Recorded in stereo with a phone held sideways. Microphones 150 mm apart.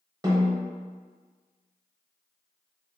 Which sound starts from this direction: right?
A snare drum, at 0.2 s.